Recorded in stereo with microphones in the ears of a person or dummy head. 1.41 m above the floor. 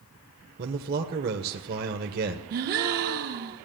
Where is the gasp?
55° right (ahead or behind), 1.1 m.